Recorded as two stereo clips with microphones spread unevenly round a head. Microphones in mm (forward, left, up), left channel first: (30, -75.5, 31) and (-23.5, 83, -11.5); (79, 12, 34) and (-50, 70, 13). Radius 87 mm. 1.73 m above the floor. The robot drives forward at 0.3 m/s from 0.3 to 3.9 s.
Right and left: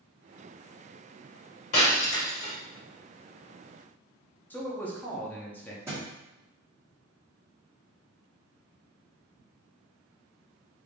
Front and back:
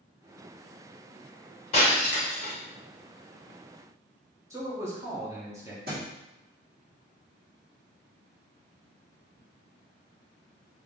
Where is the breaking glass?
60° right, 2.0 m; by 2.5 s 70° right, 1.9 m.